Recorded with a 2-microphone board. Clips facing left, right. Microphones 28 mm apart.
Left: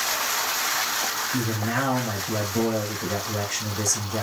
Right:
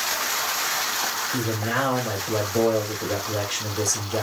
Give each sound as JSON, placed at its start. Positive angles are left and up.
{"t": 1.3, "sound": "a man speaking", "side_deg": -35, "distance_m": 3.5}